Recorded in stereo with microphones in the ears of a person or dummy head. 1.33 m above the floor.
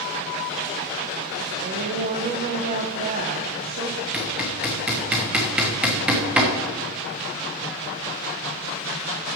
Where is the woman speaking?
45° right (ahead or behind), 1.0 m.